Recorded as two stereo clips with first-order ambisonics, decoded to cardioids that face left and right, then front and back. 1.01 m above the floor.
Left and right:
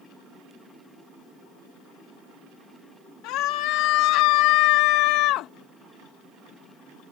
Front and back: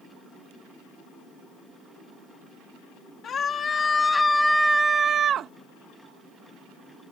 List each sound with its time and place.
3.2 s a scream: 60° left; by 5.5 s 130° left